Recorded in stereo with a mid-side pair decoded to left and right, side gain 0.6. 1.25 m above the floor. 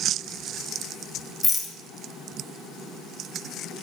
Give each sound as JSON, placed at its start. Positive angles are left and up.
{"t": 1.4, "sound": "a rattle", "azimuth_deg": 15, "distance_m": 0.5}